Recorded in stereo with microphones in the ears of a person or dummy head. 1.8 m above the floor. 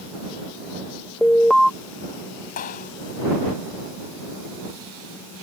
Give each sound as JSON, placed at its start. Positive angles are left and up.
{"t": 1.2, "sound": "an alarm", "side_deg": 10}
{"t": 2.6, "sound": "a clap", "side_deg": 50}